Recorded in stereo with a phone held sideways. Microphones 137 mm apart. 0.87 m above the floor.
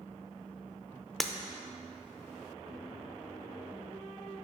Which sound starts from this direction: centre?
Breaking glass, at 1.2 s.